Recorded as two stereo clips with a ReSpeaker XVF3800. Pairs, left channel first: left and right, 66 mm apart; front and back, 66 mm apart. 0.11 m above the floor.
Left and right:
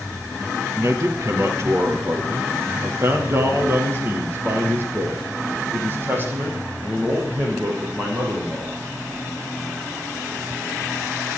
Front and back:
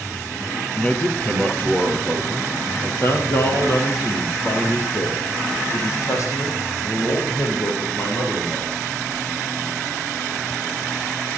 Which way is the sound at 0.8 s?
65° right.